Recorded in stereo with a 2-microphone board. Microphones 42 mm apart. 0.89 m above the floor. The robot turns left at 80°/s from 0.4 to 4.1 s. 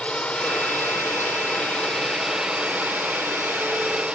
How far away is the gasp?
I don't hear a gasp.